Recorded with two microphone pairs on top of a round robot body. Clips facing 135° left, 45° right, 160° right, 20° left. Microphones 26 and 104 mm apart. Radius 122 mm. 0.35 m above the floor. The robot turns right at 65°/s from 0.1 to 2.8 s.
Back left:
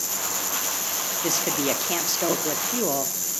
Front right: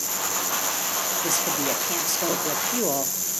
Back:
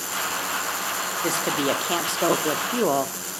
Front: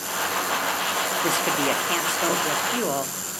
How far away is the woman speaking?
About 1.1 m.